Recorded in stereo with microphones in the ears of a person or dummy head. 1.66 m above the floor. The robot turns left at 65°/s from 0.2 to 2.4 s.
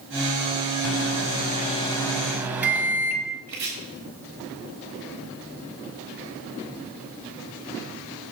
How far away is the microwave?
About 0.6 m.